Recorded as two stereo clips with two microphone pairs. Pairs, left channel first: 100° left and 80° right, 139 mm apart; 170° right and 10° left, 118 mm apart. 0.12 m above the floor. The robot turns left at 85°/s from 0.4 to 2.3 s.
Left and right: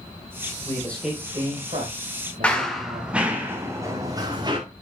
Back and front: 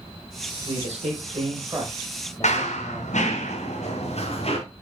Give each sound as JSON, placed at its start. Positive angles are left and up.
{"t": 0.7, "sound": "a man speaking", "azimuth_deg": 40, "distance_m": 3.5}
{"t": 2.4, "sound": "running footsteps", "azimuth_deg": 180, "distance_m": 1.6}